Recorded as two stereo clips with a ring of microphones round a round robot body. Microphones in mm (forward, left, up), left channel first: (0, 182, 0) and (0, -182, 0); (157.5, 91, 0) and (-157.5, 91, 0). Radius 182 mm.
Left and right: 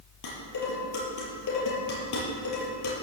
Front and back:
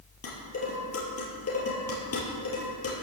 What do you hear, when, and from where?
0.2 s dishes clattering: 45° left, 5.5 m